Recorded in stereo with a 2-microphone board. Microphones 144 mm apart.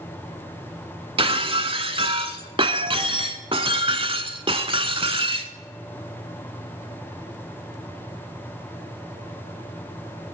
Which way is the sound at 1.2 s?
40° right (ahead or behind).